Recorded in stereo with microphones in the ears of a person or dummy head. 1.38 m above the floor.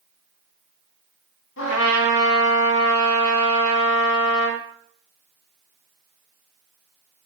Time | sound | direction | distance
1.6 | a trumpet | 70° left (ahead or behind) | 4 m